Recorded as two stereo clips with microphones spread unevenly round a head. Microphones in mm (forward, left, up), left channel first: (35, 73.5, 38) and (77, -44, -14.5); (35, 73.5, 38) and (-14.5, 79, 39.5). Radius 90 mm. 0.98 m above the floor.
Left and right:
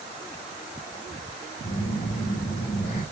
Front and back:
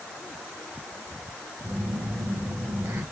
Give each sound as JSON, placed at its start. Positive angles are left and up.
{"t": 1.6, "sound": "a phone buzzing", "azimuth_deg": 150, "distance_m": 4.5}